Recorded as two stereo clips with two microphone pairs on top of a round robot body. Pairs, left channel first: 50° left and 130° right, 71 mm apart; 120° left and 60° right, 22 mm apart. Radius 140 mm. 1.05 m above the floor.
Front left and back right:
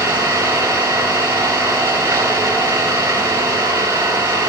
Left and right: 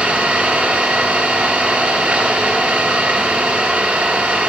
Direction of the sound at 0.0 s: 75° right.